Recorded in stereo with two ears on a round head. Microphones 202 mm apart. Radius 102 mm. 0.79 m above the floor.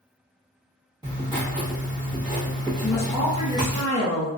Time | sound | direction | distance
1.0 | writing | 20° right (ahead or behind) | 1.0 m
2.8 | a woman speaking | 25° left (ahead or behind) | 1.5 m